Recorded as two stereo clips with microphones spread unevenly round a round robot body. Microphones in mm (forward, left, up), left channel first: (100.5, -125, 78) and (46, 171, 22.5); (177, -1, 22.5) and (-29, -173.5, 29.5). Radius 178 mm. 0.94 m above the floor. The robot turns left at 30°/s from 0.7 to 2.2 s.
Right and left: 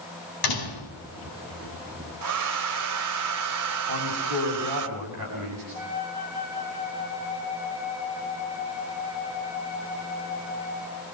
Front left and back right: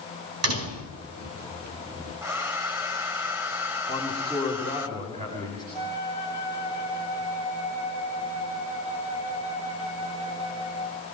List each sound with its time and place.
0.4 s a door slam: 110° right, 5 m; by 1.0 s 120° right, 5 m
2.2 s a hair dryer: 140° left, 0.9 m
3.9 s a man speaking: 145° left, 8 m
5.7 s a flute: 165° right, 5 m